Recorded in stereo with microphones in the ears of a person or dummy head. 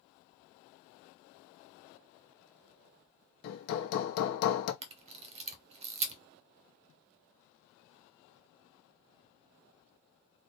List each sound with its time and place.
3.4 s hammering: 50° left (ahead or behind), 0.9 m
4.8 s a camera shutter: 30° right (ahead or behind), 0.9 m